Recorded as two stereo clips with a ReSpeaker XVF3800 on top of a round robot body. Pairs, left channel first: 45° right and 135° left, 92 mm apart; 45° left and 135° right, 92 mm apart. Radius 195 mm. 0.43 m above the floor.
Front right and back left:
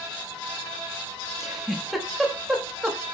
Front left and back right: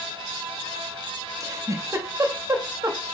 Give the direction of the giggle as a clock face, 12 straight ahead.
5 o'clock.